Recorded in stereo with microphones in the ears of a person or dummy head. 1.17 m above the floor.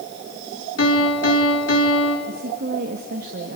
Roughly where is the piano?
Left.